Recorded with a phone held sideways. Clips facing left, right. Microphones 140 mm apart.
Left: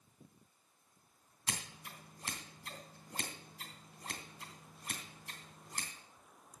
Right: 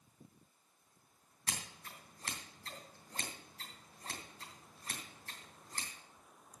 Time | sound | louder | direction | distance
1.5 | scissors | left 2 dB | 15° left (ahead or behind) | 3 m